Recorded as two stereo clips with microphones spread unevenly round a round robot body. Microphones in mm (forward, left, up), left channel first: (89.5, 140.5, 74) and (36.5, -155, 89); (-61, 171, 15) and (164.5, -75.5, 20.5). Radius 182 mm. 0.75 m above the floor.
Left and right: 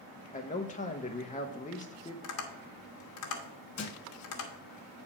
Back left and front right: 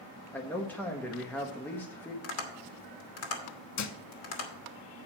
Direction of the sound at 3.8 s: 120° left.